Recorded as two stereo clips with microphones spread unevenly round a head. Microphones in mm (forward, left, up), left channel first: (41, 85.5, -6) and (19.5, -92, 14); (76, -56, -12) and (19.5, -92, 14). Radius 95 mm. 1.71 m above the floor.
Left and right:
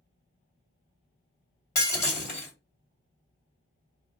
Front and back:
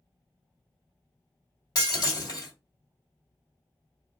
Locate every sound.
1.8 s breaking glass: 10° left, 1.9 m